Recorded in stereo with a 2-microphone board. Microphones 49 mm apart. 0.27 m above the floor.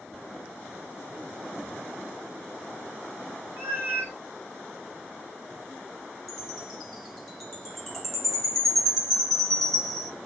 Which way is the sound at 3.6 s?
45° right (ahead or behind).